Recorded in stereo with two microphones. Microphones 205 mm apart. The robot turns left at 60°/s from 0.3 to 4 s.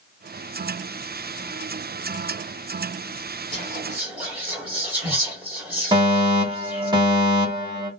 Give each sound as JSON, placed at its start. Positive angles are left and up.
{"t": 3.5, "sound": "whispering", "side_deg": -30, "distance_m": 1.5}
{"t": 5.9, "sound": "a fire alarm", "side_deg": -20, "distance_m": 2.0}